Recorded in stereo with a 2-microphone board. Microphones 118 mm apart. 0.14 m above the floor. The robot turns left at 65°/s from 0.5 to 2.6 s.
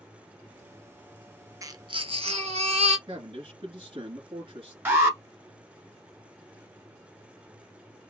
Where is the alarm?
20° right (ahead or behind), 1.2 m.